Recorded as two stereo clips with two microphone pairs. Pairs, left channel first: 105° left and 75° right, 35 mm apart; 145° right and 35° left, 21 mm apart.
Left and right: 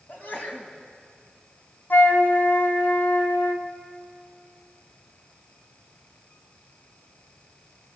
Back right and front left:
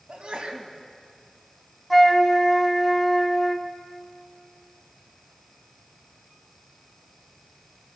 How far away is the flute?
About 1.9 m.